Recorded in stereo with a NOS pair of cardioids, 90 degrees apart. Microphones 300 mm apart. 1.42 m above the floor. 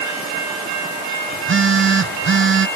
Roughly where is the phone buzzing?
Ahead right.